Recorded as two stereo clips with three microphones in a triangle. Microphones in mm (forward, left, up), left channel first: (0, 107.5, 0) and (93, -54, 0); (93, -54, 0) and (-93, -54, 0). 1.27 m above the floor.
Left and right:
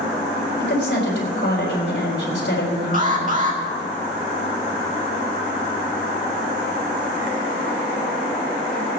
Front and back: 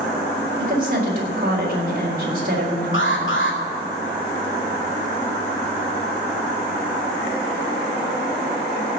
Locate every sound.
0.6 s a woman speaking: 140° left, 4 m
2.9 s an alarm: 10° right, 2 m